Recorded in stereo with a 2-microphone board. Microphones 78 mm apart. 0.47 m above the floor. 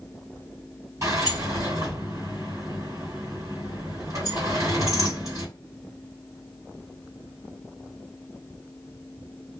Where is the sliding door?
45° right (ahead or behind), 2 m.